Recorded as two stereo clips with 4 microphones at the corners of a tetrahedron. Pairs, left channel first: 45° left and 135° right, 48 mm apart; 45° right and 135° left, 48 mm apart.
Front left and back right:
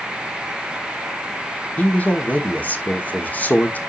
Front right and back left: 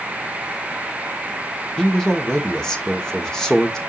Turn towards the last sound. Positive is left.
turn(degrees=30)